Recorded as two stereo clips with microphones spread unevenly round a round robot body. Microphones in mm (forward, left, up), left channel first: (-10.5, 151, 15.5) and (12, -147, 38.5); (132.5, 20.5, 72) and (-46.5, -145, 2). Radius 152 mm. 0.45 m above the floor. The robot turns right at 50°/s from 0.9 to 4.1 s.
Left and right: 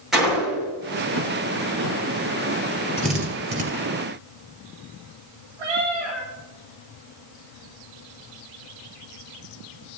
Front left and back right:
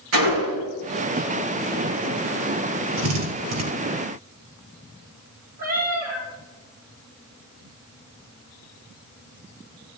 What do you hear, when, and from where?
0.1 s a gunshot: 175° right, 4.5 m
3.0 s a drill: 155° right, 3.5 m; by 3.6 s 120° right, 3.5 m
5.6 s a cat meowing: 85° right, 4.5 m